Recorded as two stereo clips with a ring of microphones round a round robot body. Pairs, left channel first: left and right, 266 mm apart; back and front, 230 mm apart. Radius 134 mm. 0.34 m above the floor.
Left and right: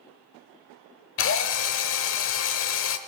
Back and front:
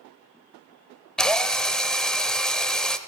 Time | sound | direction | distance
1.2 | a drill | 95° left | 0.9 m